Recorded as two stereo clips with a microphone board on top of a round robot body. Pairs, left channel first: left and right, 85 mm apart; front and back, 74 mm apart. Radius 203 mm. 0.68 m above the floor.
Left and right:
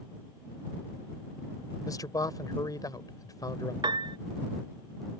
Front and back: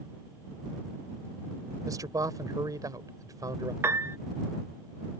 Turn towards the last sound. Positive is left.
turn(degrees=-125)